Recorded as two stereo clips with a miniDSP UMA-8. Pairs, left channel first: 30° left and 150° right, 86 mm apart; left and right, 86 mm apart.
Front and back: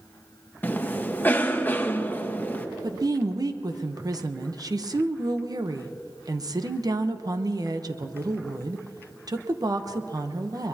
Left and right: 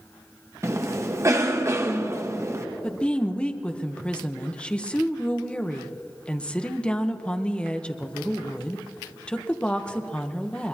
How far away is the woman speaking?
About 0.9 m.